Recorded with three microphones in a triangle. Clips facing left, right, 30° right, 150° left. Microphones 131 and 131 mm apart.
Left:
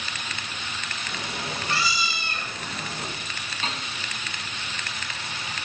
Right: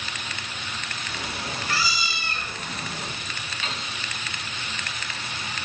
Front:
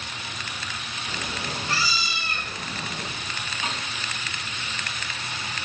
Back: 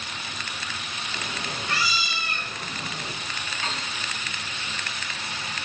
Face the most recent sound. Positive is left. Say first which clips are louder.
# left 2 dB, front 1 dB
turn(degrees=40)